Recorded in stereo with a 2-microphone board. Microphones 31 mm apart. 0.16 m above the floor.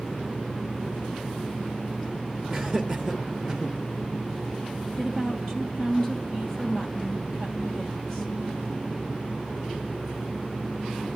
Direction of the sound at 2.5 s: 15° right (ahead or behind).